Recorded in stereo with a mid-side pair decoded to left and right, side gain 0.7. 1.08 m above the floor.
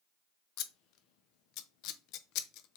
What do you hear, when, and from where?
0.6 s scissors: 60° left, 0.6 m